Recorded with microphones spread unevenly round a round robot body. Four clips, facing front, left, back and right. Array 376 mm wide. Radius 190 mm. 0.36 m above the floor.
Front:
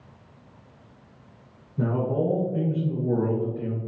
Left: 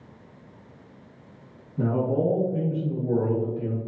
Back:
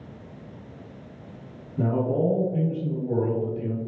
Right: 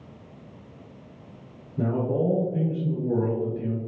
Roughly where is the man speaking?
Behind right.